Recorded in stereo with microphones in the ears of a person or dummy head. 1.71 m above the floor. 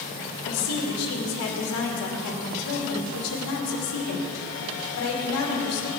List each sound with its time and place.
0.4 s a woman speaking: 80° left, 2.5 m